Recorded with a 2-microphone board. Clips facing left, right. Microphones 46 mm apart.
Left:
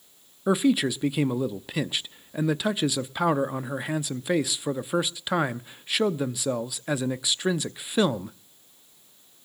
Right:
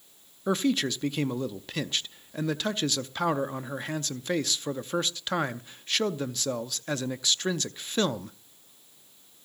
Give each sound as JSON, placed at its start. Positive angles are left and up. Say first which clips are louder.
{"t": 0.5, "sound": "a man speaking", "louder": "left 4 dB", "side_deg": 10, "distance_m": 0.6}